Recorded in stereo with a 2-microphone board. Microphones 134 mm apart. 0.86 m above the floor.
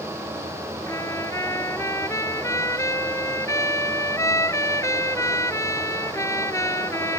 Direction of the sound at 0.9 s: 20° left (ahead or behind).